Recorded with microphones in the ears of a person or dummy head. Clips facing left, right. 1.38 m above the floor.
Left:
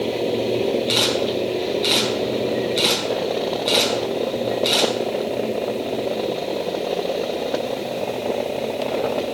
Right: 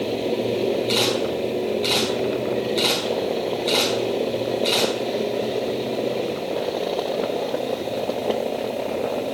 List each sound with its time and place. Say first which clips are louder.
0.9 s a camera shutter: left 1 dB; 10° left (ahead or behind), 5 m